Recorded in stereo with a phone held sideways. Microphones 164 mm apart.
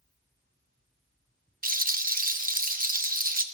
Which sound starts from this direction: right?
A rattle, at 1.6 s.